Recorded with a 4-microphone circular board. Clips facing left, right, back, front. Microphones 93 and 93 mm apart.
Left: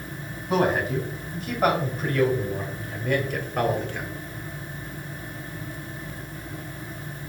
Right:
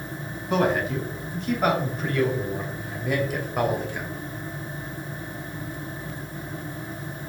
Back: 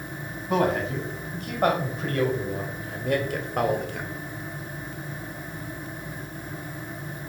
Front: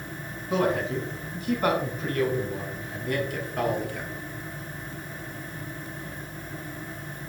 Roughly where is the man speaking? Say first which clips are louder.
Even, back 1 dB; behind.